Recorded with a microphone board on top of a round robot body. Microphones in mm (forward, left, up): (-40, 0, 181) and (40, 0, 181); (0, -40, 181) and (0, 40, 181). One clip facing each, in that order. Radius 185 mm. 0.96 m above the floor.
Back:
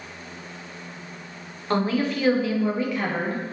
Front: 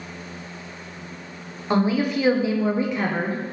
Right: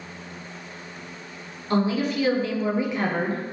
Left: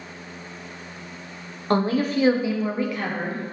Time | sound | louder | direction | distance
1.7 | a woman speaking | front 2 dB, left 2 dB | 80° left | 0.8 m